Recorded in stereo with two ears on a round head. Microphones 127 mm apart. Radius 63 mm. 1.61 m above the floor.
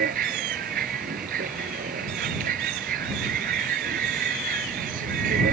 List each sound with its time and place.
0.0 s a vehicle: 60° right (ahead or behind)